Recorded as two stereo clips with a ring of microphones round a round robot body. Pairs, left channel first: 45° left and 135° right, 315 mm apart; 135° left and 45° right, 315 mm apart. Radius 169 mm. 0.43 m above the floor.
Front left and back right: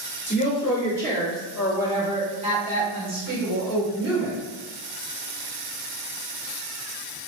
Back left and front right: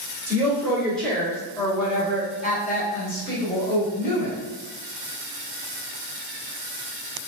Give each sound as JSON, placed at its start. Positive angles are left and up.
{"t": 0.3, "sound": "a woman speaking", "azimuth_deg": 25, "distance_m": 1.3}